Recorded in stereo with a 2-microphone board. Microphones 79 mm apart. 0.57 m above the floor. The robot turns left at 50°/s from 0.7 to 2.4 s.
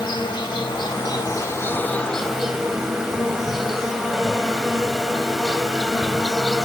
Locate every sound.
0.0 s an insect: 80° left, 0.7 m; by 6.7 s 5° right, 0.7 m